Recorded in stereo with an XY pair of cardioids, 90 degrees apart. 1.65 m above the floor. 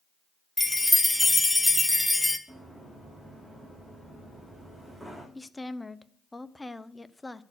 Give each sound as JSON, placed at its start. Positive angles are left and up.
{"t": 0.6, "sound": "a chime", "azimuth_deg": 5, "distance_m": 0.9}
{"t": 2.5, "sound": "running footsteps", "azimuth_deg": -10, "distance_m": 7.0}
{"t": 5.3, "sound": "a woman speaking", "azimuth_deg": 15, "distance_m": 0.6}